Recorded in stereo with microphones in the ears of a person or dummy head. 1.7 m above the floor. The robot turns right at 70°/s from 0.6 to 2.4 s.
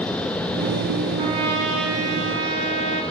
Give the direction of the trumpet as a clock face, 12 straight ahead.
5 o'clock.